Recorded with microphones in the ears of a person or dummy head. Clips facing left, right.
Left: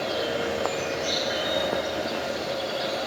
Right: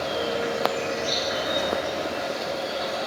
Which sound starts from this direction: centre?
An insect, at 0.0 s.